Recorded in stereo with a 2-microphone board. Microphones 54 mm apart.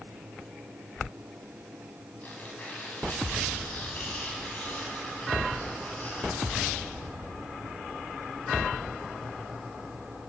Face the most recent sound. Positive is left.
turn(degrees=35)  # may be behind; listen again after turning